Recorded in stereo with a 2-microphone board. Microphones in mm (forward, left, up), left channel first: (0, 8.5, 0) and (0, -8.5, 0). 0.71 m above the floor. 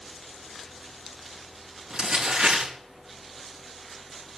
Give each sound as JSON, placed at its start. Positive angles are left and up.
{"t": 1.9, "sound": "crumpling", "side_deg": -75, "distance_m": 7.5}